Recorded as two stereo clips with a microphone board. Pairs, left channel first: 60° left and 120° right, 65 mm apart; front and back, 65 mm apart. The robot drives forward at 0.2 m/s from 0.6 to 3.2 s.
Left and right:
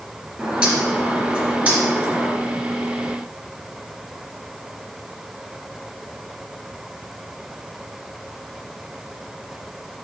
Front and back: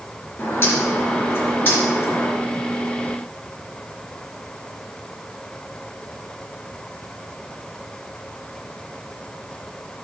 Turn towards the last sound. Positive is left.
turn(degrees=-65)